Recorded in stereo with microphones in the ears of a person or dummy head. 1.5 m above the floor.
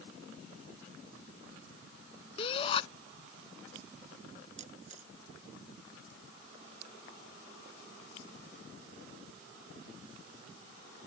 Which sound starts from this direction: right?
A camera shutter, at 4.6 s.